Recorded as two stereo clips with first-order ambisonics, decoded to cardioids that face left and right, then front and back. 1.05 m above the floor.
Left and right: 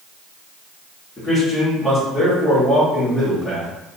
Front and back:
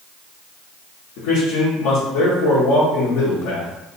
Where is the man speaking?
Straight ahead, 1.4 m.